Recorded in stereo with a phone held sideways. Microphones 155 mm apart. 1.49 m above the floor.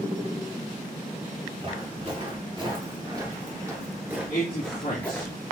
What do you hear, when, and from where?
1.6 s footsteps: 45° right (ahead or behind), 2.5 m; by 5.3 s 15° left (ahead or behind), 1.6 m
4.3 s a man speaking: 80° left, 1.8 m